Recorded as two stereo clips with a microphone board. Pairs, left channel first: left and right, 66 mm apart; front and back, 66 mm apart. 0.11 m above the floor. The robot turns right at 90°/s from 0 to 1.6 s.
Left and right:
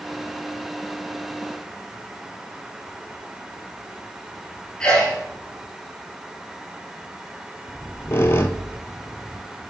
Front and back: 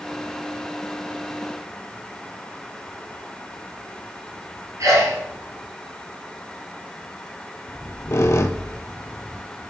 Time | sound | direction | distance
4.8 | a sneeze | 160° left | 2.5 m
7.7 | a squeak | 40° left | 0.6 m